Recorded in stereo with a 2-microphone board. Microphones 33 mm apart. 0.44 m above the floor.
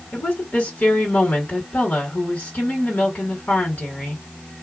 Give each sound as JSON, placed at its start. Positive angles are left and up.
{"t": 0.1, "sound": "a woman speaking", "side_deg": 55, "distance_m": 2.5}